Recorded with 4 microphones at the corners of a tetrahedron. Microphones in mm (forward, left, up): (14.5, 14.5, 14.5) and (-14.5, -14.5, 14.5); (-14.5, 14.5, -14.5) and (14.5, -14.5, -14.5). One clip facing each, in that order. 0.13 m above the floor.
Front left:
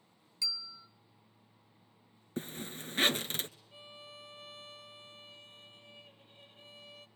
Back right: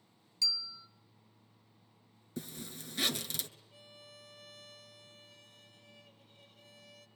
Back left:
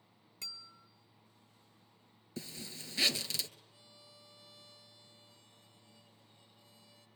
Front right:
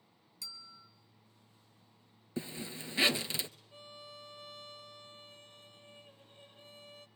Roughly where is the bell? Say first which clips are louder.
Back right 3 dB, back left 1 dB; left.